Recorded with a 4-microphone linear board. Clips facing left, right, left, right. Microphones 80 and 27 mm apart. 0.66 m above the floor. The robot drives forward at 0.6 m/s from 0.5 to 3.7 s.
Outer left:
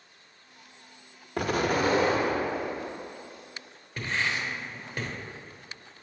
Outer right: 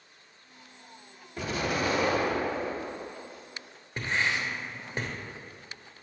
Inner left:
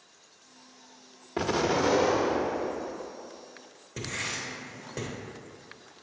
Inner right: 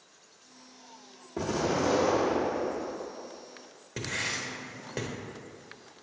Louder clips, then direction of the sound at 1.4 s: Outer left 4 dB, inner left 3 dB; 60° left (ahead or behind).